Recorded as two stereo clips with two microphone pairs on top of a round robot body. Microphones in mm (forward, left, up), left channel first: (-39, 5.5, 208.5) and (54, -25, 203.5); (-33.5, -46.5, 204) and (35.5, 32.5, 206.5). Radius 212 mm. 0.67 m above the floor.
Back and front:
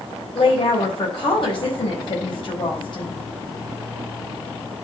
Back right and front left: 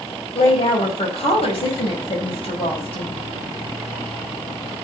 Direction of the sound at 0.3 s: 160° right.